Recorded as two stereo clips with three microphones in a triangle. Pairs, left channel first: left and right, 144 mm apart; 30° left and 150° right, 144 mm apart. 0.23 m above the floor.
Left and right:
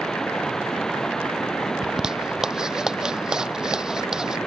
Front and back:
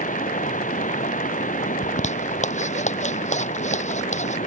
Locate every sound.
0.0 s running water: 5° left
1.8 s a zipper: 5° right